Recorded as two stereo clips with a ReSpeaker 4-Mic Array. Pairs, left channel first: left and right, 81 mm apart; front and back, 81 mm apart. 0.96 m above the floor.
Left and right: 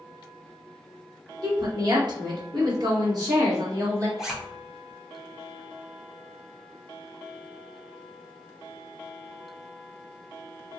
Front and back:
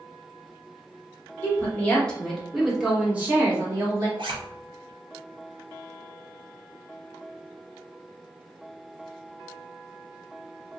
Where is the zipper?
175° right, 0.7 m.